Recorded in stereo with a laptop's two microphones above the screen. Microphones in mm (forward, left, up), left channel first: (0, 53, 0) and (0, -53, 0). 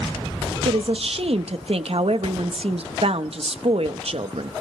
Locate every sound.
0.7 s a woman speaking: 65° right (ahead or behind), 0.9 m